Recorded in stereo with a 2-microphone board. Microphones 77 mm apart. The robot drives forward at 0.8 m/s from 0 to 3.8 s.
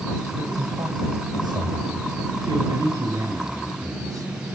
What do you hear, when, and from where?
0.3 s a man speaking: 65° right (ahead or behind), 2.5 m; by 4.3 s 50° right (ahead or behind), 3 m